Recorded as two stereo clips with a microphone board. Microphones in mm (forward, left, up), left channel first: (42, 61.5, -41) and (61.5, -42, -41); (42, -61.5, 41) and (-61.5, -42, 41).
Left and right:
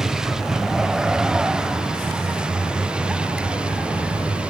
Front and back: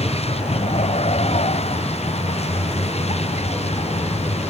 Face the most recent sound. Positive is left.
turn(degrees=0)